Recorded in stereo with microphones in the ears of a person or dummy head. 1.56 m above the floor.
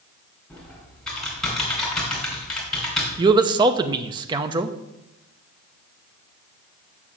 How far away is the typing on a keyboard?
About 4 m.